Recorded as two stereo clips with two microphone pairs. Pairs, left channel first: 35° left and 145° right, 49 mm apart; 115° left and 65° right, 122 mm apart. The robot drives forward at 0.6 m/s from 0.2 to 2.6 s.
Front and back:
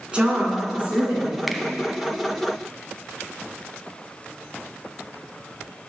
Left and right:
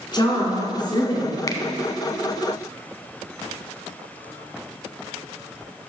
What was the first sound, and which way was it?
A woman speaking, 150° left.